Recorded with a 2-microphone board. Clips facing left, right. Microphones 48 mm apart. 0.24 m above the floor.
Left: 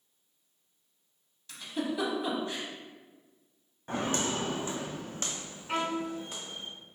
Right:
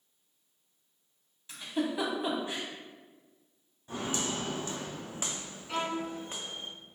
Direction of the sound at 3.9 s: 60° left (ahead or behind).